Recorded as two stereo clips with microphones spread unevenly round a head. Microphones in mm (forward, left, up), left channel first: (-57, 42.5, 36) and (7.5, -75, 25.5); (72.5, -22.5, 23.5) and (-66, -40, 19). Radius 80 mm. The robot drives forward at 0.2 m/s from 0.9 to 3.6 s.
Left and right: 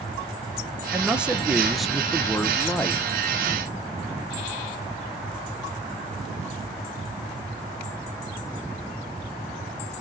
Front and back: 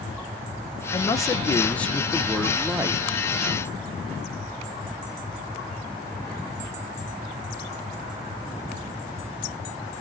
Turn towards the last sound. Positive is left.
turn(degrees=-175)